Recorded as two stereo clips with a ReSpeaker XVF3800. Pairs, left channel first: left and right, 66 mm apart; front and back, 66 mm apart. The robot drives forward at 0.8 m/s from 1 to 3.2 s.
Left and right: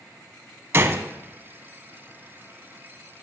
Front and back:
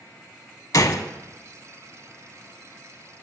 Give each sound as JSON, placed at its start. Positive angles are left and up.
{"t": 0.7, "sound": "a gunshot", "azimuth_deg": -35, "distance_m": 0.6}